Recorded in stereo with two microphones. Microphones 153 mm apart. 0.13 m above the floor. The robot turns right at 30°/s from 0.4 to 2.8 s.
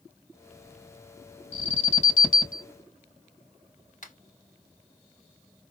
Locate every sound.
1.5 s an alarm: 35° left (ahead or behind), 3.5 m; by 2.6 s 65° left (ahead or behind), 3.5 m
4.0 s a finger snap: 60° left (ahead or behind), 3.5 m